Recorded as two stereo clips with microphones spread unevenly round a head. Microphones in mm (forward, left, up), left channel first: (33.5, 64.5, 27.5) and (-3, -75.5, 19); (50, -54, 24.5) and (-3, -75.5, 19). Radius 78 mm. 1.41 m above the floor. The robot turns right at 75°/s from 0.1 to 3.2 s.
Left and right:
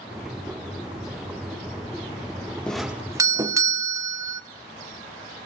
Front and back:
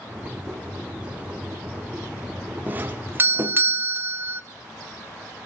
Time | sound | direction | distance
2.7 | a doorbell | 160° left | 0.9 m